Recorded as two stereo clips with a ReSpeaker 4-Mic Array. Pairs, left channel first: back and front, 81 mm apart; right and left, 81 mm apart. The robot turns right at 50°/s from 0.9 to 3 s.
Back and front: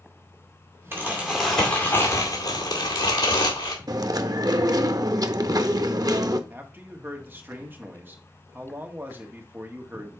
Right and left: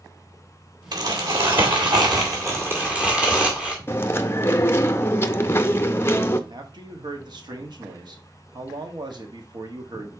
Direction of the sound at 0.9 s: 60° left.